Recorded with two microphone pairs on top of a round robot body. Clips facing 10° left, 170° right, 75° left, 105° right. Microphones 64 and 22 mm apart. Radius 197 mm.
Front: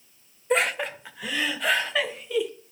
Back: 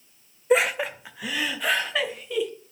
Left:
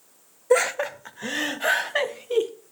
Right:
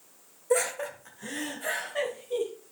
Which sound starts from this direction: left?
Laughter, at 0.5 s.